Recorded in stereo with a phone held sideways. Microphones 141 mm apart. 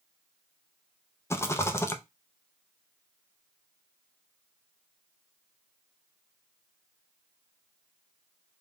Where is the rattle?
20° left (ahead or behind), 0.5 m.